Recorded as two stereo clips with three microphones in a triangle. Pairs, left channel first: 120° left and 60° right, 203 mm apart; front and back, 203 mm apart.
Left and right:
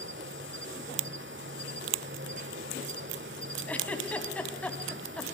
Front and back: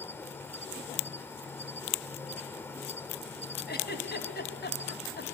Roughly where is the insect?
Right.